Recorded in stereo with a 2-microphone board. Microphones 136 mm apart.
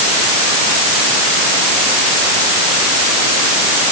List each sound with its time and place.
Only background noise.